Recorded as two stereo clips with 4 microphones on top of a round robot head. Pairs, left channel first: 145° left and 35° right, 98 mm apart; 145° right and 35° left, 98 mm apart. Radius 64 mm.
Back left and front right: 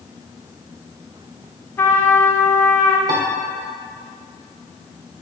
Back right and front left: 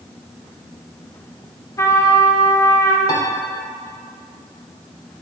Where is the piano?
90° right, 0.8 m.